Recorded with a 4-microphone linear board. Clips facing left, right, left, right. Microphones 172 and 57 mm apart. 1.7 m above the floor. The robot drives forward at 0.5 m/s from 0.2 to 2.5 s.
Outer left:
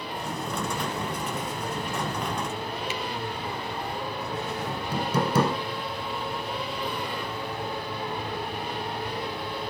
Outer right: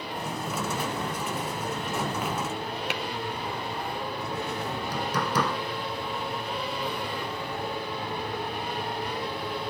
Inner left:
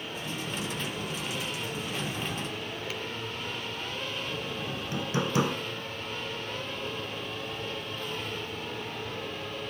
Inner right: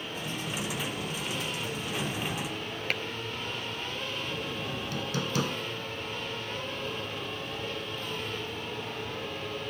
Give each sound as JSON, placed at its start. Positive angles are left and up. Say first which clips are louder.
{"t": 2.9, "sound": "tapping", "louder": "even, inner right 9 dB", "side_deg": -65}
{"t": 4.7, "sound": "hammering", "louder": "outer left 2 dB, inner left 1 dB", "side_deg": 25}